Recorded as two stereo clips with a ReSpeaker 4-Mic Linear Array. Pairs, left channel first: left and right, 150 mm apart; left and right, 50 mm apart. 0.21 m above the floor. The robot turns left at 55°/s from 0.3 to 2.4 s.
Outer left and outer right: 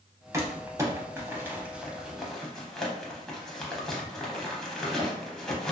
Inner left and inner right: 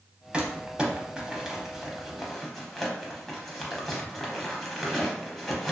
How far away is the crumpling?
About 0.6 m.